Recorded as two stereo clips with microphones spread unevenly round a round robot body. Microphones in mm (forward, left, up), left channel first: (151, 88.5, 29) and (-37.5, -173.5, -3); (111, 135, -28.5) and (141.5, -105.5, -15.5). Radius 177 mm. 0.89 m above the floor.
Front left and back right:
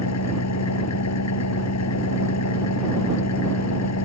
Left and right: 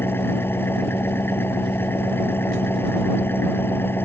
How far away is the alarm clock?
No alarm clock in this recording.